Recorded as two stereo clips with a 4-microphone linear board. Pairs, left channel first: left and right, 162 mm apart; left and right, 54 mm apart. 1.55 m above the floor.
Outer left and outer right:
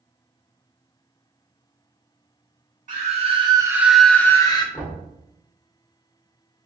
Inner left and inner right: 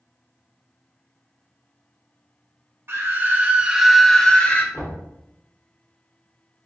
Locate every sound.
2.9 s a scream: 50° right (ahead or behind), 0.8 m; by 4.6 s 30° left (ahead or behind), 0.7 m
4.7 s knocking: 10° left (ahead or behind), 1.2 m